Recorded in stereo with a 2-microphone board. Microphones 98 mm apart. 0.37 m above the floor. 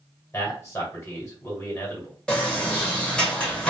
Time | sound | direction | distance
0.3 | a man speaking | 30° left (ahead or behind) | 1.8 m
2.3 | a sliding door | 10° left (ahead or behind) | 1.3 m